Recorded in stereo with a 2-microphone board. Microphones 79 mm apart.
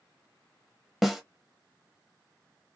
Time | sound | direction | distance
1.0 | a snare drum | 5° right (ahead or behind) | 0.9 m